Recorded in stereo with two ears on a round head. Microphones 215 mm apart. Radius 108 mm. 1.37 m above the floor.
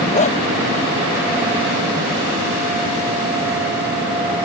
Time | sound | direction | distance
0.1 | a dog barking | 30° left (ahead or behind) | ?